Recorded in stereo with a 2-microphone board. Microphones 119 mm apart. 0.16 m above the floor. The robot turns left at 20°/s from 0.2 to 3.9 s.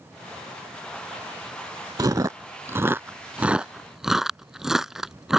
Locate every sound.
2.0 s chewing: 30° right (ahead or behind); by 5.4 s 5° right (ahead or behind)